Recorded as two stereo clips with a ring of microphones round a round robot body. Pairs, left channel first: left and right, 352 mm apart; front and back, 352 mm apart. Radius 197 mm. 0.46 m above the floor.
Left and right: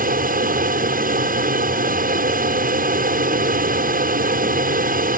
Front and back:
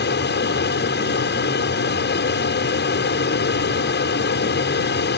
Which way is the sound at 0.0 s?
40° right.